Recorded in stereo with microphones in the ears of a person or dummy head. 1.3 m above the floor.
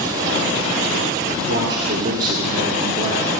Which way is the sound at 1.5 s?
60° right (ahead or behind).